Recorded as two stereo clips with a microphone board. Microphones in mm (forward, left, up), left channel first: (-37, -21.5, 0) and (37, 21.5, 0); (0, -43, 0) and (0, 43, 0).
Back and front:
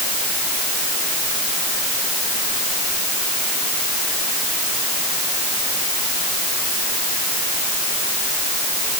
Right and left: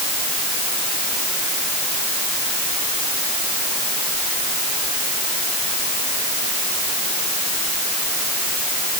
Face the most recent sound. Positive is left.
No sound to turn to.